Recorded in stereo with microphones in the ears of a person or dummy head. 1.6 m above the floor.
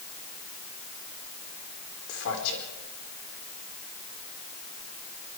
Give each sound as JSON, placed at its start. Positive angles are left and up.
{"t": 2.1, "sound": "a man speaking", "side_deg": 70, "distance_m": 4.0}